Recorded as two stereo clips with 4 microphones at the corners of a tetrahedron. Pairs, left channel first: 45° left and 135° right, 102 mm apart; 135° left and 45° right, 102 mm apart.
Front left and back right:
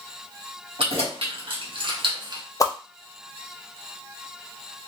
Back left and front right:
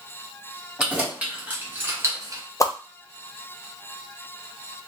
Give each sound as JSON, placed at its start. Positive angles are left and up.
{"t": 0.8, "sound": "keys jangling", "azimuth_deg": -125, "distance_m": 1.4}
{"t": 2.6, "sound": "a whoosh", "azimuth_deg": 90, "distance_m": 0.5}